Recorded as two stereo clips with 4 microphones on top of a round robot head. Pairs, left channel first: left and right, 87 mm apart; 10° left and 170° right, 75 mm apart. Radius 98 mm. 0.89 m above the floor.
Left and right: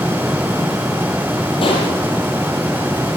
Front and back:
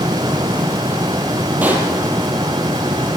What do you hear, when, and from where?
1.6 s a pop: 120° left, 5.5 m